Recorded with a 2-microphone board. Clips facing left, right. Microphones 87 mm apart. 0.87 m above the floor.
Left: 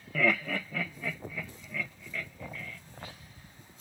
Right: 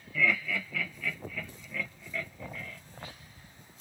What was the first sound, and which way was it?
Laughter, 50° left (ahead or behind).